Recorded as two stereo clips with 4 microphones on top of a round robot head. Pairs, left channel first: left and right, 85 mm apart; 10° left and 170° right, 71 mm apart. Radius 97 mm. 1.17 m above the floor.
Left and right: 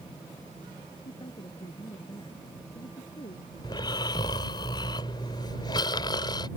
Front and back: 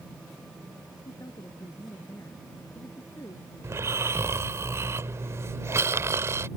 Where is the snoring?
135° left.